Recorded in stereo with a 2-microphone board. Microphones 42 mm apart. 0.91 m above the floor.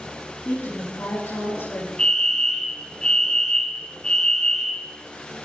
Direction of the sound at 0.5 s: 80° left.